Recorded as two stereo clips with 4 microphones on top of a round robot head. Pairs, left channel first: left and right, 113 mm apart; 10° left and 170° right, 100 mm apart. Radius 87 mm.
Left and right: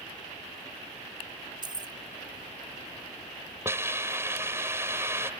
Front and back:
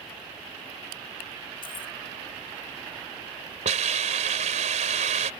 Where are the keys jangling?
40° right.